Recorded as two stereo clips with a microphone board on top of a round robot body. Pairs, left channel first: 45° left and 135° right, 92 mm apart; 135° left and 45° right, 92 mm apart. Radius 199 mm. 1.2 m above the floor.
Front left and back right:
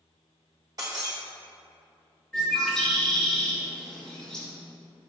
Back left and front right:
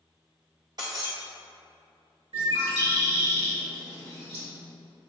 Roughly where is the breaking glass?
Right.